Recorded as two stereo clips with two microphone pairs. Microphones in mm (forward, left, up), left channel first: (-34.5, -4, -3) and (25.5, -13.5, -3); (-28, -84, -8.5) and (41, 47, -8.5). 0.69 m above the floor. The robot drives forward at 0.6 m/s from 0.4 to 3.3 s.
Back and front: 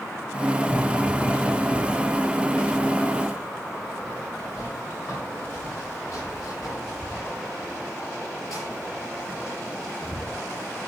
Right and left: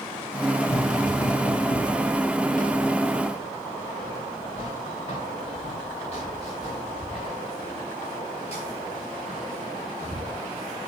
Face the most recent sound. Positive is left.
turn(degrees=-165)